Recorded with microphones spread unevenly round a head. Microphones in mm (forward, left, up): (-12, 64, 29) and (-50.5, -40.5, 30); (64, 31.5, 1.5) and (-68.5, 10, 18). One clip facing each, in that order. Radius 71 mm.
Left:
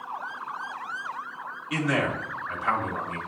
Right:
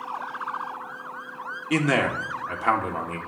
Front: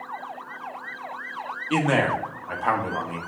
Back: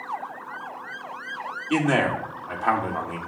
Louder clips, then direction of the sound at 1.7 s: Right 4 dB, even; 80° right.